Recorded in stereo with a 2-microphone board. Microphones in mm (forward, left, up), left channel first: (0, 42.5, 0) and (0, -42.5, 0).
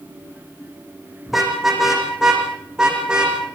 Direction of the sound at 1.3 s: Centre (ahead or behind).